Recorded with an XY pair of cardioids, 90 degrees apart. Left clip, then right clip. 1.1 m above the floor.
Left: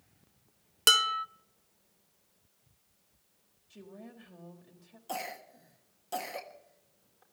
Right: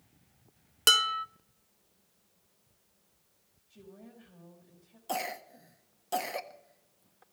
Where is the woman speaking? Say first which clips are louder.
Left 3 dB; 60° left, 4 m.